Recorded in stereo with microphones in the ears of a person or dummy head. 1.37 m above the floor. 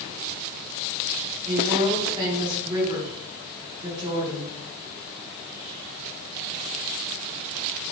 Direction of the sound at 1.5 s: 25° right (ahead or behind).